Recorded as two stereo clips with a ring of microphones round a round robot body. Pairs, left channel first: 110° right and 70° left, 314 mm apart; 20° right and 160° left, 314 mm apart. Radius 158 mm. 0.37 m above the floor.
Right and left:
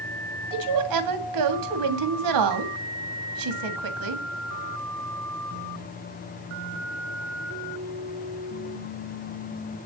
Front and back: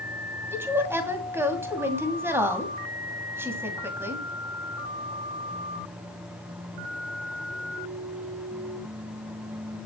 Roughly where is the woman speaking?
Left.